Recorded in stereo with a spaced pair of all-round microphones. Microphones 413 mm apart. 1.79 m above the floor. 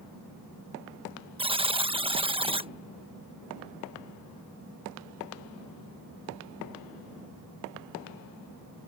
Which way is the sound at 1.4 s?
15° right (ahead or behind).